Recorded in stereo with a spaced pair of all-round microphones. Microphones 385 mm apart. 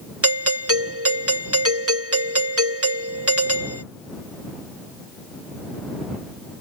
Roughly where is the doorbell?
Right.